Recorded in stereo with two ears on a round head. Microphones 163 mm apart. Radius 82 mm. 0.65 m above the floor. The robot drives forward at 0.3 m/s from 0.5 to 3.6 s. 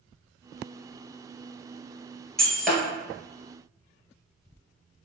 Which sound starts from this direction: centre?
Breaking glass, at 2.4 s.